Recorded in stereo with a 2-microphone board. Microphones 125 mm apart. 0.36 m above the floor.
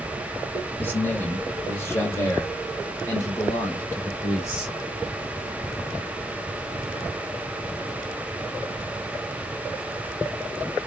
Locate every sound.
0.8 s a man speaking: 15° left (ahead or behind), 1.6 m